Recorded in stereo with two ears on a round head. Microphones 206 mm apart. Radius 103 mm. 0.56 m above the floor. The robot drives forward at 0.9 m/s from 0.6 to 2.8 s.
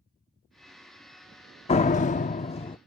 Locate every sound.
1.7 s a door slam: 25° left (ahead or behind); by 2.8 s 20° left (ahead or behind)